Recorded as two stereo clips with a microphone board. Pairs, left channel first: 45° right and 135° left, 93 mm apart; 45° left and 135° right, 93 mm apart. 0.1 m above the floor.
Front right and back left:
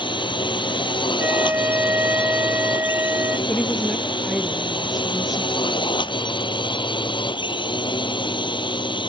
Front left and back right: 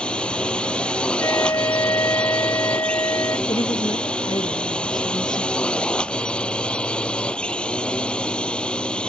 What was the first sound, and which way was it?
A drone, 30° right.